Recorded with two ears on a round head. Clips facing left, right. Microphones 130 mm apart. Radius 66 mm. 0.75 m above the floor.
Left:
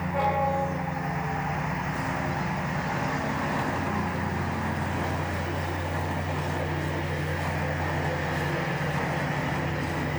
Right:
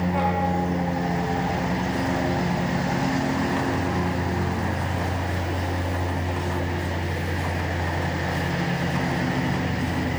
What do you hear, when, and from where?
0.0 s a lawn mower: 35° right (ahead or behind)